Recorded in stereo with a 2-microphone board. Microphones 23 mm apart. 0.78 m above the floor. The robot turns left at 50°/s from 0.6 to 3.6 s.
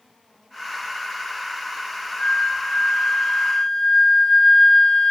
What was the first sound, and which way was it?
A flute, 90° left.